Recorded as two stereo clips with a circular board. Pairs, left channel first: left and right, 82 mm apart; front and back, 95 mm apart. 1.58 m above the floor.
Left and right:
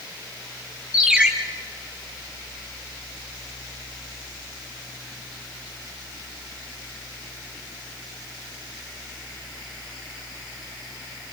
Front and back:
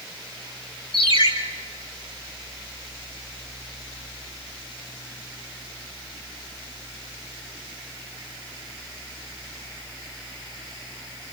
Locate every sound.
0.9 s a ringtone: 15° right, 4 m